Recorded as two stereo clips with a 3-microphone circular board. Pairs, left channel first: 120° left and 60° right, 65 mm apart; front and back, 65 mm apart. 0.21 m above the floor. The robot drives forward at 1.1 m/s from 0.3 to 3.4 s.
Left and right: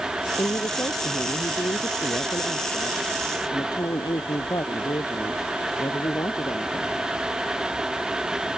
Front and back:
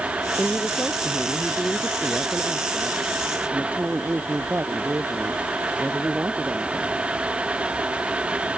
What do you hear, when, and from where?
0.4 s a woman speaking: 80° left; by 7.0 s 120° left